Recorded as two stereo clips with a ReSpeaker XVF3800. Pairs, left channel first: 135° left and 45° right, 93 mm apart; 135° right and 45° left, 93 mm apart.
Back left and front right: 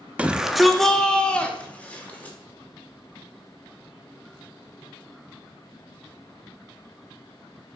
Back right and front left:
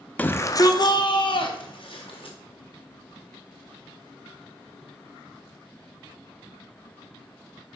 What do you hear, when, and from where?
0.2 s a shout: 95° right, 0.5 m; by 2.4 s 155° right, 1.6 m